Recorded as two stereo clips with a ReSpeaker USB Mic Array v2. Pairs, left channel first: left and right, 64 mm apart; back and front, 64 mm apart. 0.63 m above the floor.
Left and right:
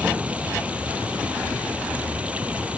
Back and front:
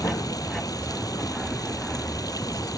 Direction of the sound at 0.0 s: 160° right.